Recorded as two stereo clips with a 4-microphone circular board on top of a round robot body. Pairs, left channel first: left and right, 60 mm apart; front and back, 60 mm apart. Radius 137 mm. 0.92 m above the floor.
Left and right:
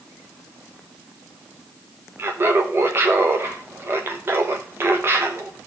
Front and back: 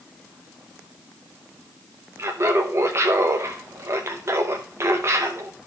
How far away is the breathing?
I don't hear breathing.